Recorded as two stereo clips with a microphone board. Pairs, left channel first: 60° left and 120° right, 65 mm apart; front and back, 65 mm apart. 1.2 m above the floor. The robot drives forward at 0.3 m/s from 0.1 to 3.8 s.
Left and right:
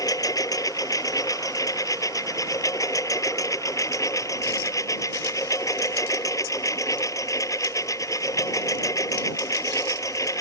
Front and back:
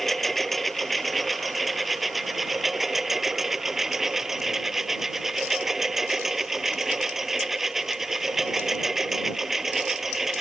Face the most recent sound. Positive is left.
turn(degrees=95)